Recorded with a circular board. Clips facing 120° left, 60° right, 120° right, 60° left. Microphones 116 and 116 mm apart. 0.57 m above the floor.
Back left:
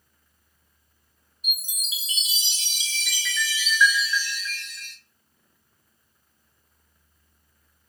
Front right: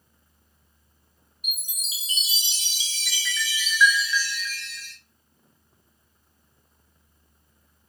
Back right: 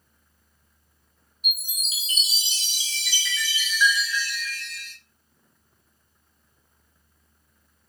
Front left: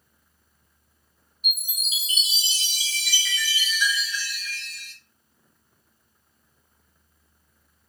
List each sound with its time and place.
1.4 s a chime: 20° left, 1.9 m